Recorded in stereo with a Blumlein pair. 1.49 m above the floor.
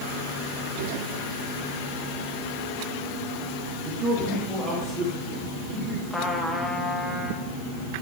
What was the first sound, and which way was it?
A man speaking, 25° right.